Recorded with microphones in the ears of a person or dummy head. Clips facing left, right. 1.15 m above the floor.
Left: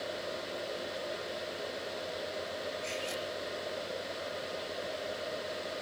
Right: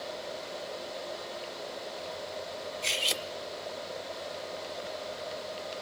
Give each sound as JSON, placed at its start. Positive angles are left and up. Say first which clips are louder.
{"t": 2.8, "sound": "cutlery clinking", "louder": "even", "side_deg": -75, "distance_m": 1.6}